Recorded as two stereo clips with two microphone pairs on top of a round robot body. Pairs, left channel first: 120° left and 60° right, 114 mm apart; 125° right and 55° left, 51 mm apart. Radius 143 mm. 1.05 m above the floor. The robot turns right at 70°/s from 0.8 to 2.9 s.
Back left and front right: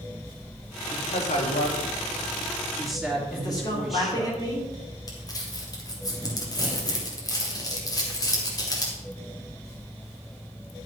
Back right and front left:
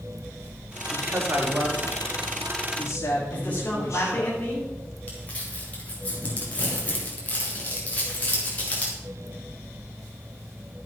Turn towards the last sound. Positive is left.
turn(degrees=175)